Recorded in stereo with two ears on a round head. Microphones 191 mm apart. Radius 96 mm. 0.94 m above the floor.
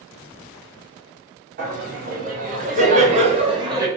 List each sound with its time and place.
1.6 s laughter: 40° right (ahead or behind), 1.4 m; by 3.9 s 15° right (ahead or behind), 0.8 m